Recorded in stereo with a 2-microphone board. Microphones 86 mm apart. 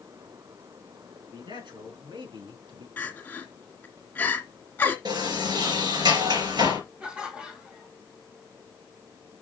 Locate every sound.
1.3 s a man speaking: 70° right (ahead or behind), 4 m
3.0 s crying: 20° left (ahead or behind), 2 m
5.0 s a sliding door: 60° right (ahead or behind), 4.5 m
7.0 s laughter: 15° right (ahead or behind), 2.0 m